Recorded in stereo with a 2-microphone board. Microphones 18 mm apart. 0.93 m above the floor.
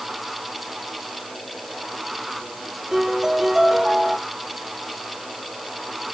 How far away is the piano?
About 5.5 m.